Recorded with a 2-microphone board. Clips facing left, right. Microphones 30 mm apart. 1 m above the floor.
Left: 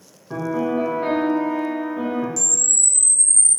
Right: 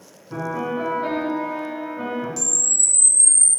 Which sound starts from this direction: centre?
A camera shutter, at 2.4 s.